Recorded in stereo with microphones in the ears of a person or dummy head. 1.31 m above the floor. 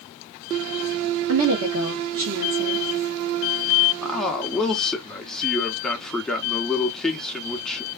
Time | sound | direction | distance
1.3 | a woman speaking | 70° right (ahead or behind) | 0.8 m
4.0 | a man speaking | 5° left (ahead or behind) | 0.6 m